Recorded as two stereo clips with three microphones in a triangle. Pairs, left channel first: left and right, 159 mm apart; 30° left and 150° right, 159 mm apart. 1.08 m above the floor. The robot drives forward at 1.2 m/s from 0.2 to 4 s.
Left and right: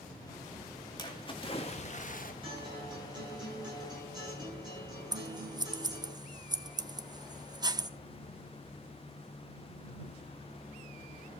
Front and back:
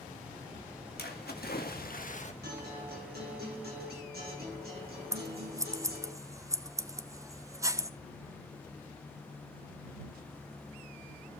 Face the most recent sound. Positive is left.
turn(degrees=-105)